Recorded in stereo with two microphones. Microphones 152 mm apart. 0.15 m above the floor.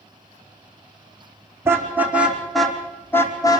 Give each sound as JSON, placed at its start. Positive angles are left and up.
{"t": 1.6, "sound": "a car horn", "side_deg": -15, "distance_m": 4.0}